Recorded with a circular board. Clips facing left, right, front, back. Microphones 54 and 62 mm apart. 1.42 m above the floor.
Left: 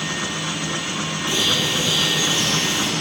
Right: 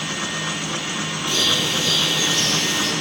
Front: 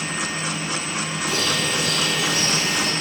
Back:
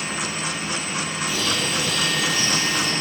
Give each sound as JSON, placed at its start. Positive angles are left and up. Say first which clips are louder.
{"t": 1.3, "sound": "a bird", "louder": "even, front 2 dB", "azimuth_deg": 20, "distance_m": 1.5}